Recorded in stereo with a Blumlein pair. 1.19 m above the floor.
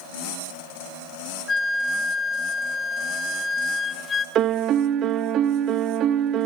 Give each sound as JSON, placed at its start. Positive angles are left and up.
{"t": 1.5, "sound": "a flute", "azimuth_deg": 15, "distance_m": 0.7}
{"t": 4.3, "sound": "a piano", "azimuth_deg": -30, "distance_m": 0.6}